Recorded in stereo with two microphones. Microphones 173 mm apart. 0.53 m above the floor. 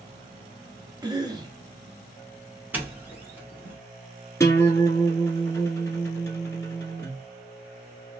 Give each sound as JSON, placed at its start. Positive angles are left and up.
{"t": 1.0, "sound": "a cough", "side_deg": -20, "distance_m": 1.0}
{"t": 2.7, "sound": "a doorbell", "side_deg": -10, "distance_m": 1.3}
{"t": 4.4, "sound": "a guitar", "side_deg": 15, "distance_m": 1.2}